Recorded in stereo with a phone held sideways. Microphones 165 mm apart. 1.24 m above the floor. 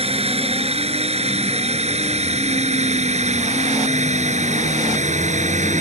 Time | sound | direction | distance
0.0 | a drone | 35° right (ahead or behind) | ?